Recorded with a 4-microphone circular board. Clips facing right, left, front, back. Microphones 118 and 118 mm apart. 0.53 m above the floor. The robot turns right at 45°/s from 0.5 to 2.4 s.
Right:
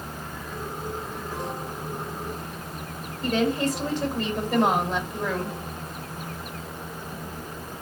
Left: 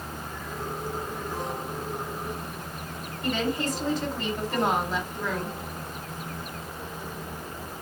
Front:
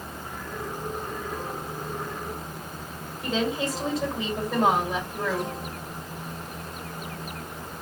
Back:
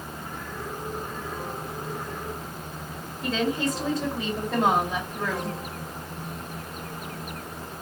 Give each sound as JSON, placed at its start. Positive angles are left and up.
{"t": 3.2, "sound": "a woman speaking", "azimuth_deg": -90, "distance_m": 2.5}